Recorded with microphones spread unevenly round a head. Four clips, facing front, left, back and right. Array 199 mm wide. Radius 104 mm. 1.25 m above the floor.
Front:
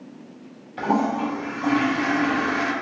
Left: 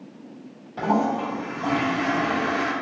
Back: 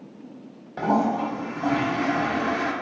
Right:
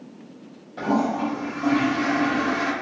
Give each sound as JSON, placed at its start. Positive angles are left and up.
{"t": 0.8, "sound": "a toilet flushing", "azimuth_deg": 180, "distance_m": 1.3}